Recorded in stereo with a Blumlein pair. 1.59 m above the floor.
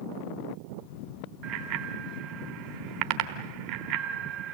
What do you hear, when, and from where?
1.4 s a bicycle bell: 45° right, 3.5 m